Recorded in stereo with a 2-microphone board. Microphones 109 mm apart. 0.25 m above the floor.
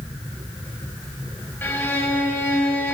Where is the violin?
20° left (ahead or behind), 1.3 m.